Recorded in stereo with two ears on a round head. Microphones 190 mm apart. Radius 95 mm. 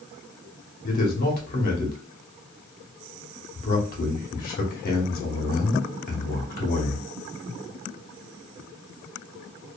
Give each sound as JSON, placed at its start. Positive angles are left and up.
{"t": 0.8, "sound": "a man speaking", "side_deg": 45, "distance_m": 0.9}